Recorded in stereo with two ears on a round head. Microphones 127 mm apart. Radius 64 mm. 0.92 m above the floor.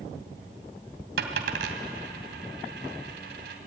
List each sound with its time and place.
1.2 s a dropped coin: 80° right, 2.5 m